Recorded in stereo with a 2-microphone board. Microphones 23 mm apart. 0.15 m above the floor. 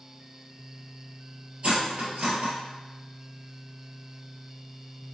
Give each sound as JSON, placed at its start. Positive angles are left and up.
{"t": 1.6, "sound": "cutlery clinking", "side_deg": -60, "distance_m": 1.6}